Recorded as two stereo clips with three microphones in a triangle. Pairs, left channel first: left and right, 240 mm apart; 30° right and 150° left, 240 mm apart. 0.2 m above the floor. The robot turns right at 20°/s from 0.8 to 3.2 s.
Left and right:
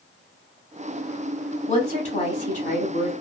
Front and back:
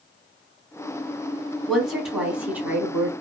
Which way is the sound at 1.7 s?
55° left.